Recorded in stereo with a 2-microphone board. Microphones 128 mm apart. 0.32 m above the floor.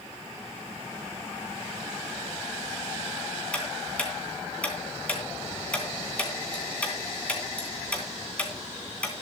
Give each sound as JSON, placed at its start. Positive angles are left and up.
{"t": 3.5, "sound": "ticking", "side_deg": 10, "distance_m": 3.0}